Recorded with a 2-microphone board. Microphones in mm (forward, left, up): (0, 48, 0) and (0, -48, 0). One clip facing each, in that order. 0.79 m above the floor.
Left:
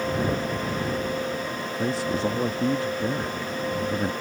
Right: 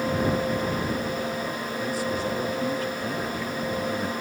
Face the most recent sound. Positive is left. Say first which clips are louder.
# left 3 dB
turn(degrees=25)  # may be behind; listen again after turning